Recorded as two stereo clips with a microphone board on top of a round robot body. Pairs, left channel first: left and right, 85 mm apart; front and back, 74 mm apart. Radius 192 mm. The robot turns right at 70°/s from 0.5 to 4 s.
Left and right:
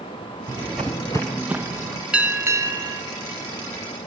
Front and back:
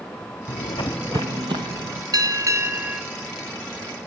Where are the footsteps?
30° right, 0.9 m; by 2.0 s 125° right, 1.7 m.